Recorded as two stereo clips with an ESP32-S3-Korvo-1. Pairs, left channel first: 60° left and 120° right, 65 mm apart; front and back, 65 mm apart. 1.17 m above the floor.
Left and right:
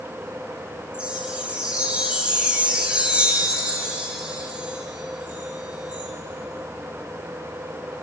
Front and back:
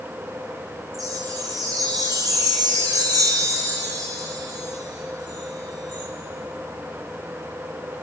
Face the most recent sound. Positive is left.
turn(degrees=170)